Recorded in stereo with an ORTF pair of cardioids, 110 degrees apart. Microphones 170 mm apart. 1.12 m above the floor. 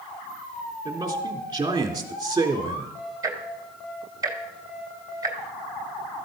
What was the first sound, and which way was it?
A man speaking, 25° right.